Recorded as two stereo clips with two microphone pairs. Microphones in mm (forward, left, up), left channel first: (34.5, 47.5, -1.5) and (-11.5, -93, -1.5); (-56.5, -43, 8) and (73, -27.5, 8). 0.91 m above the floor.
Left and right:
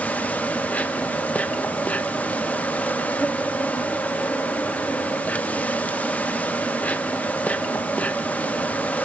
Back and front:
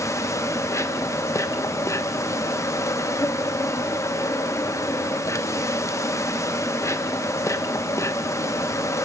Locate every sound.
0.0 s an insect: 145° left, 1.0 m